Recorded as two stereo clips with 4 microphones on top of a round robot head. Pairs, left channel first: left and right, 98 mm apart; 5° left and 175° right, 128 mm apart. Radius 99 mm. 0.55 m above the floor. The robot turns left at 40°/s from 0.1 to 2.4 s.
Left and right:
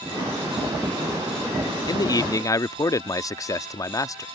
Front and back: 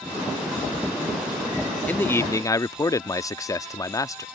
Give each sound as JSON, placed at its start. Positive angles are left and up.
{"t": 1.9, "sound": "a man speaking", "azimuth_deg": 75}